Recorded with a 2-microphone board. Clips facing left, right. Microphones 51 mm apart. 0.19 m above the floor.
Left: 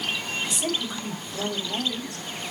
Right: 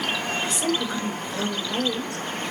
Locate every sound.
0.4 s a woman speaking: 65° right (ahead or behind), 3 m